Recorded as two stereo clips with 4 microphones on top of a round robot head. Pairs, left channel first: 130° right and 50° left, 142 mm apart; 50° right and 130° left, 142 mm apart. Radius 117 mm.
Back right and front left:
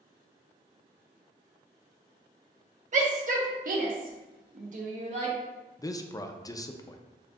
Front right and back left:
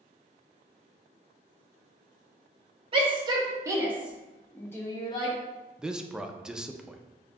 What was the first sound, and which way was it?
A shout, 80° left.